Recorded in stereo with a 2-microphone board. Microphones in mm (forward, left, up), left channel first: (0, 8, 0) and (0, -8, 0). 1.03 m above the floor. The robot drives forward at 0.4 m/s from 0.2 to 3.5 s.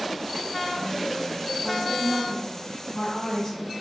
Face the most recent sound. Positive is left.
turn(degrees=55)  # may be behind; listen again after turning